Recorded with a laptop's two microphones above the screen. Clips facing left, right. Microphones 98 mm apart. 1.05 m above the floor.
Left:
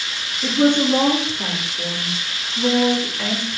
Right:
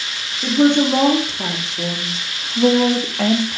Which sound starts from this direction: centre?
A woman speaking, at 0.4 s.